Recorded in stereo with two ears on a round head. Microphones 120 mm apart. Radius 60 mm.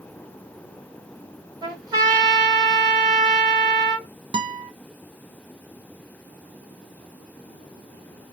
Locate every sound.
1.6 s a trumpet: 30° right (ahead or behind), 2.0 m
4.3 s a guitar: 35° right (ahead or behind), 0.7 m